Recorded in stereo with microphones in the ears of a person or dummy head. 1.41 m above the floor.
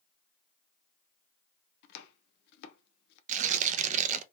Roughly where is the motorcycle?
No motorcycle in this recording.